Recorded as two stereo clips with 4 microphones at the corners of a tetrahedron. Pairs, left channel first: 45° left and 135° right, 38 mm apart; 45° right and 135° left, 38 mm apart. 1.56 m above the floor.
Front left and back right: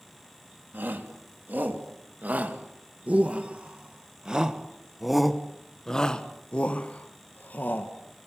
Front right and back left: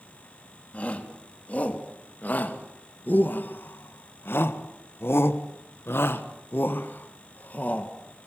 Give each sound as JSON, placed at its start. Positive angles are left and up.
{"t": 0.7, "sound": "a shout", "azimuth_deg": -100, "distance_m": 3.5}